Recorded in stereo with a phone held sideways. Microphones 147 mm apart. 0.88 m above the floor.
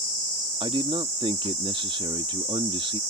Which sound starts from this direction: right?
A man speaking, at 0.6 s.